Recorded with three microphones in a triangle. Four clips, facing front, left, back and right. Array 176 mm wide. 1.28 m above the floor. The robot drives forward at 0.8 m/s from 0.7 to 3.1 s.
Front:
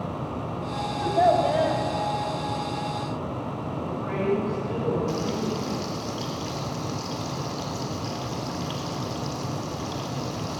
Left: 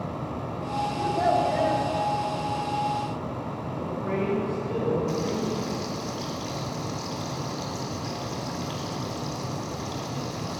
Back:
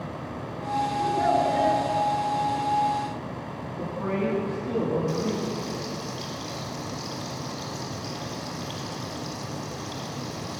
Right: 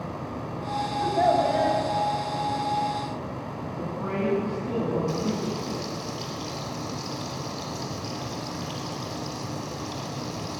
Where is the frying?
20° left, 3.5 m.